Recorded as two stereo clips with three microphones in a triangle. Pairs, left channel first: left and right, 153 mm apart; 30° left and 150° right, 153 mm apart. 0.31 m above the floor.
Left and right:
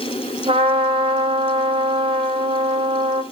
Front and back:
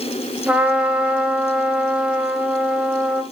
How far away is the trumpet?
About 1.5 m.